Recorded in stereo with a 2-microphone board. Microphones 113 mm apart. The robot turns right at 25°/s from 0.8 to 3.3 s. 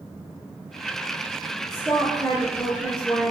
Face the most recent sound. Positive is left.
turn(degrees=5)  # may be behind; listen again after turning